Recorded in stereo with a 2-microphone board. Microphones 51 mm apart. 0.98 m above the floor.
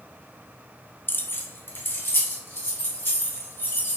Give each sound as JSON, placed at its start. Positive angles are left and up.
{"t": 1.1, "sound": "keys jangling", "side_deg": 45, "distance_m": 0.6}